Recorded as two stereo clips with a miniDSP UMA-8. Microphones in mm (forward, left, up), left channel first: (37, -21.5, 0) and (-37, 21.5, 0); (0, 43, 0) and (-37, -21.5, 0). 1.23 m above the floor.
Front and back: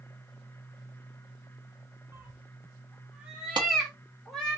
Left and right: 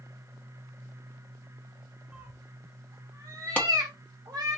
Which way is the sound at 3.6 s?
130° left.